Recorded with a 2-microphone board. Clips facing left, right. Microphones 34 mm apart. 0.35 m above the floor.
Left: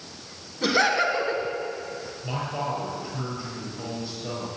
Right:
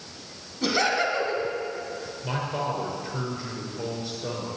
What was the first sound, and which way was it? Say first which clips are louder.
Laughter: left 2 dB; 10° left (ahead or behind).